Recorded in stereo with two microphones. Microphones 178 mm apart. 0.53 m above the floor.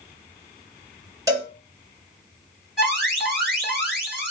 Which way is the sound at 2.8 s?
Centre (ahead or behind).